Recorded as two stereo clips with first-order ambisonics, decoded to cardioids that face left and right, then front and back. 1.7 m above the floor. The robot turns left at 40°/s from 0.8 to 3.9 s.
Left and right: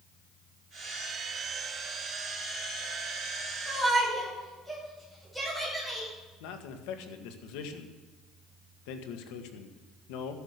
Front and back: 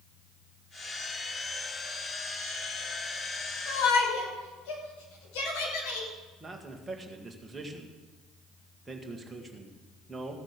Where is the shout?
15° left, 6 m; by 6.1 s 5° left, 6 m.